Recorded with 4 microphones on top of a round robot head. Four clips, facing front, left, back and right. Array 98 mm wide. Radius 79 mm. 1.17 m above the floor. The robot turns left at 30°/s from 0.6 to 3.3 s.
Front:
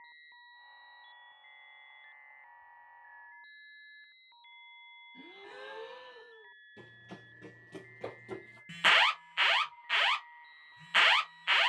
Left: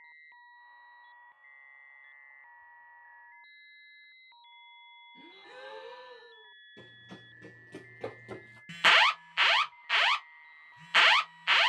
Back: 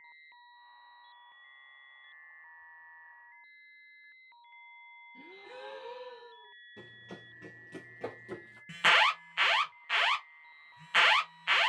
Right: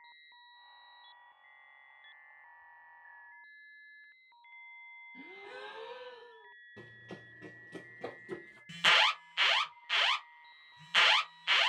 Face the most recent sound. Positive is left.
turn(degrees=100)